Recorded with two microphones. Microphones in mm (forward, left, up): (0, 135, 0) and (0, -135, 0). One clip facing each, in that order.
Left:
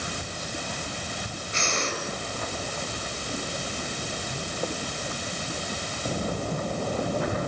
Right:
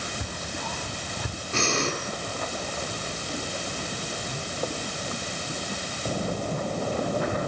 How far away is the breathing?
About 5.5 m.